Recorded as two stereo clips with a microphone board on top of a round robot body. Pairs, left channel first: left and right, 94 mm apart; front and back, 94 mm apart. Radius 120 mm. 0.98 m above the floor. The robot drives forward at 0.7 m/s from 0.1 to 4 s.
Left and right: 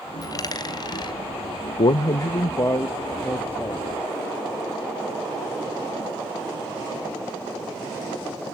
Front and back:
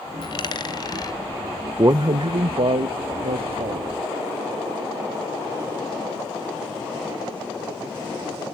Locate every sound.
0.2 s a dropped coin: 40° left, 2.5 m; by 1.2 s 50° left, 2 m
1.8 s a man speaking: 120° left, 0.5 m; by 3.9 s 165° left, 1.8 m